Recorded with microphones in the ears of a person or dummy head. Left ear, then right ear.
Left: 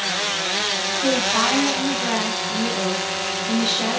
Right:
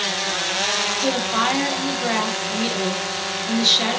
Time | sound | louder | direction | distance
1.0 | a woman speaking | left 5 dB | 35° right (ahead or behind) | 3 m